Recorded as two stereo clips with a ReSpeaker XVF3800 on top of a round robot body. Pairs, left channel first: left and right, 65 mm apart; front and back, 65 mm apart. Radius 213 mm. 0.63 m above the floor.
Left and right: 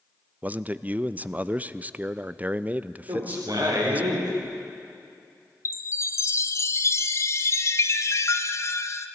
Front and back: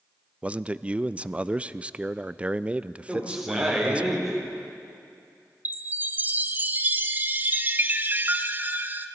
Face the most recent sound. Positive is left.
turn(degrees=125)